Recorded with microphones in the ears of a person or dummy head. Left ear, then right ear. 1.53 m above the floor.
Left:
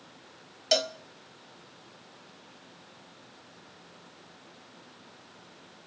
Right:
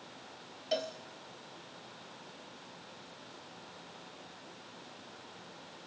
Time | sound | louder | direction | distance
0.7 | a cowbell | left 9 dB | 50° left (ahead or behind) | 0.7 m